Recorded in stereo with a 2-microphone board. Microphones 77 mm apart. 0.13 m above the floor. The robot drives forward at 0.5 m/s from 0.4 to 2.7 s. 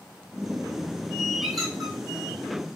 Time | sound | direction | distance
1.4 | a squeak | centre (ahead or behind) | 2.5 m